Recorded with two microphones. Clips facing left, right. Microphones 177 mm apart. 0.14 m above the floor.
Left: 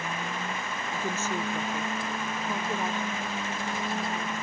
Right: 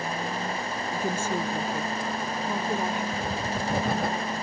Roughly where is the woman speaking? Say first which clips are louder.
Right 3 dB; centre.